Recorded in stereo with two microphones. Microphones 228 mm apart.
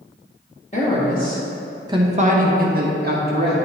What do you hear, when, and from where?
0.7 s a woman speaking: 30° left (ahead or behind), 1.5 m; by 3.5 s 45° right (ahead or behind), 2.5 m